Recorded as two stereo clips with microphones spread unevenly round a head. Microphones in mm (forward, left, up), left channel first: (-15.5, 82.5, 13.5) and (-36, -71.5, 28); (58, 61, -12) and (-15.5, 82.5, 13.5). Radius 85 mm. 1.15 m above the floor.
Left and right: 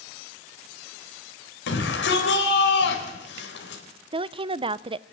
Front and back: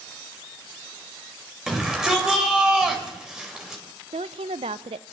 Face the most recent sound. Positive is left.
turn(degrees=-155)